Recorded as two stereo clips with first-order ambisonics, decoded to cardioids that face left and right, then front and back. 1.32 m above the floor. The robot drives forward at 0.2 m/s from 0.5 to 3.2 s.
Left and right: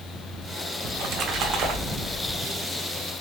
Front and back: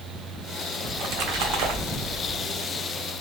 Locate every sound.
0.8 s a splash: 145° right, 0.7 m; by 2.4 s 155° right, 0.9 m